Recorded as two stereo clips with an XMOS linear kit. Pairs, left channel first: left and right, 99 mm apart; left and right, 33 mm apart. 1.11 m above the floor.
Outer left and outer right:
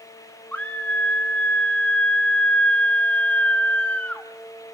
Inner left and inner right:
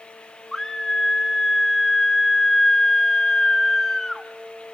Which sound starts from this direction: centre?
A scream, at 0.5 s.